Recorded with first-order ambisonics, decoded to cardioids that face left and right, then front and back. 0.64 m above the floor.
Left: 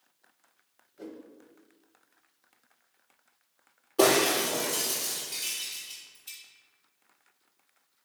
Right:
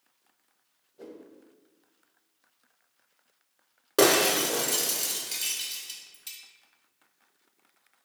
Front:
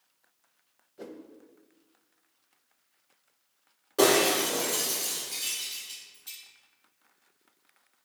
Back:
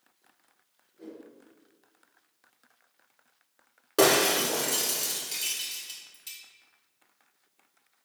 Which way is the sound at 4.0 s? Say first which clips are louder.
Right 1 dB, even; 120° right.